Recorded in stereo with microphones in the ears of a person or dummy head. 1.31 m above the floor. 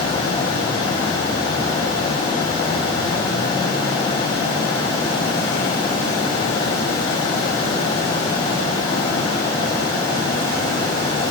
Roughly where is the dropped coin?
I don't hear a dropped coin.